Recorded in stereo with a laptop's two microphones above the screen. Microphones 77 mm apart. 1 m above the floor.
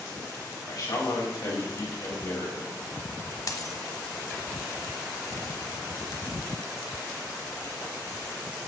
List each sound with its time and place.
0.7 s a man speaking: 60° left (ahead or behind), 5 m
3.5 s a dropped coin: 50° left (ahead or behind), 1.3 m